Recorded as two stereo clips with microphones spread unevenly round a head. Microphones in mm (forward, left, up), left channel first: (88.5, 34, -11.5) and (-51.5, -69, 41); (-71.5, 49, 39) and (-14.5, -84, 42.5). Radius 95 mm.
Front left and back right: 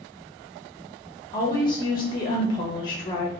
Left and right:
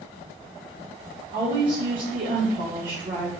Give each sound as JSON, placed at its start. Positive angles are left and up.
{"t": 1.3, "sound": "a woman speaking", "azimuth_deg": -30, "distance_m": 0.5}